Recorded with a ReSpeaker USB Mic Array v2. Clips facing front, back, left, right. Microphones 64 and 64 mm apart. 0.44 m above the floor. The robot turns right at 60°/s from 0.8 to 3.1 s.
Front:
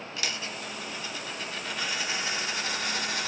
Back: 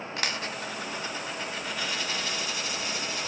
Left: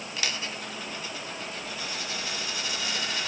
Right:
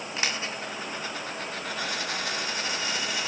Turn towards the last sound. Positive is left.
turn(degrees=-10)